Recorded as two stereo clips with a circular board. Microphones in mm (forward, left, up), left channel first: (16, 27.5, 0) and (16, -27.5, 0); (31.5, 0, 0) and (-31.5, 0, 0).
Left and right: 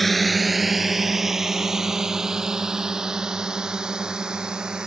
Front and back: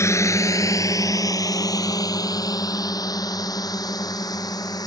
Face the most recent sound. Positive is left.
turn(degrees=-15)